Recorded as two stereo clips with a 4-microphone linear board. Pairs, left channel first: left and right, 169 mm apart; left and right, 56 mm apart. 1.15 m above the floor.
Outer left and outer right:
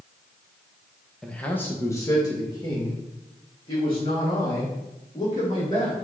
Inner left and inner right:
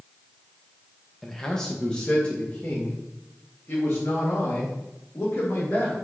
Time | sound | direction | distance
1.2 | a man speaking | 5° left (ahead or behind) | 0.7 m